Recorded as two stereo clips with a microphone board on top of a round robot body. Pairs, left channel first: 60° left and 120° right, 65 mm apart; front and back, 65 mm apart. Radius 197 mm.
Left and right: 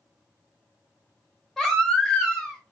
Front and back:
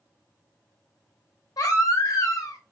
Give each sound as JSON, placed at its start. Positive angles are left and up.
{"t": 1.6, "sound": "a baby crying", "azimuth_deg": -25, "distance_m": 0.8}